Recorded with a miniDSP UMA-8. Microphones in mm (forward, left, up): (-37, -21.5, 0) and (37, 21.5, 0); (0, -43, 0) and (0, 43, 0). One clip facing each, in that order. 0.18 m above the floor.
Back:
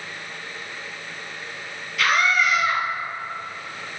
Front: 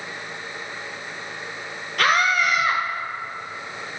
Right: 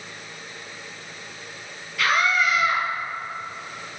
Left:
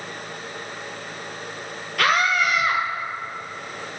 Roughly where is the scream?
Ahead left.